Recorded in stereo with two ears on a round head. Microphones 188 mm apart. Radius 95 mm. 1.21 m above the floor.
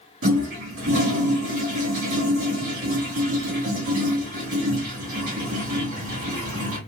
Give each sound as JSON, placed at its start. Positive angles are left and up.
{"t": 0.2, "sound": "a toilet flushing", "side_deg": -70, "distance_m": 2.0}